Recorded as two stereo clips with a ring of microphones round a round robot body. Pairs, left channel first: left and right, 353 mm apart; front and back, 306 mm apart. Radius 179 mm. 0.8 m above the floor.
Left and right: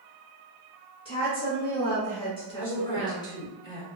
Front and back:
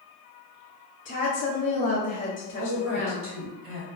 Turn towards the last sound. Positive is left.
turn(degrees=165)